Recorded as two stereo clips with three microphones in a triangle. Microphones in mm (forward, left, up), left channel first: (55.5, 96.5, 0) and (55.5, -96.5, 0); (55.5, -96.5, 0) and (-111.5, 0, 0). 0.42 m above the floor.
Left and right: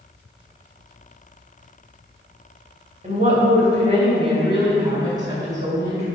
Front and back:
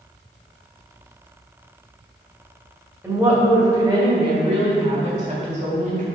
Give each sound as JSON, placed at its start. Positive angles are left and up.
{"t": 3.0, "sound": "a woman speaking", "azimuth_deg": -135, "distance_m": 2.0}